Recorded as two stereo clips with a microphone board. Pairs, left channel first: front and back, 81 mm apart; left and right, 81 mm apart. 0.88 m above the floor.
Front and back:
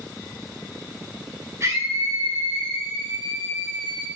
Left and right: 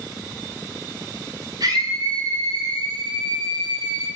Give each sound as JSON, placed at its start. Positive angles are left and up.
{"t": 1.6, "sound": "a scream", "azimuth_deg": -125, "distance_m": 9.5}